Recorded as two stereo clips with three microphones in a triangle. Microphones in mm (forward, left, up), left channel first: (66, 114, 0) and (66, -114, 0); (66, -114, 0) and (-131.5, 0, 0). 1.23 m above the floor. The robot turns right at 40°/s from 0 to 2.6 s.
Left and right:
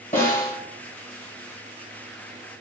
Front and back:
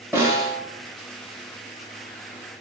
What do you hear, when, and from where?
0.1 s a snare drum: 75° left, 1.2 m; by 0.6 s 95° left, 1.2 m